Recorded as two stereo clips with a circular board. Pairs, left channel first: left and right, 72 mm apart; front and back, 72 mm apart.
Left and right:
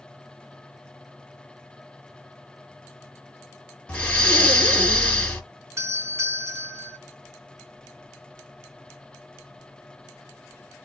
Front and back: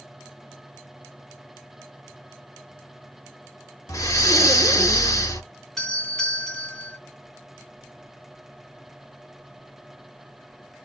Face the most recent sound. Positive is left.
turn(degrees=-75)